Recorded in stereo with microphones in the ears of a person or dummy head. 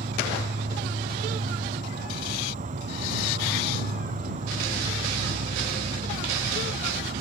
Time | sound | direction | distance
0.0 | an insect | 35° right (ahead or behind) | ?